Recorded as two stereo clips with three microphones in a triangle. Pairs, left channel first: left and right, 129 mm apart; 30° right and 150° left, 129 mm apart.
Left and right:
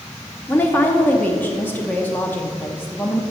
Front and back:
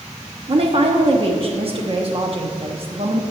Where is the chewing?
I don't hear chewing.